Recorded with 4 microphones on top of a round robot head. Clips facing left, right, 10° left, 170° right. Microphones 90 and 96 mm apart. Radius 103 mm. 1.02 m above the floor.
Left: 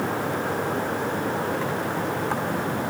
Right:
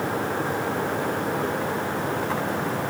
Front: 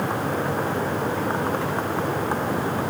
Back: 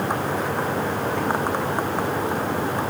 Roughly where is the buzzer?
I don't hear a buzzer.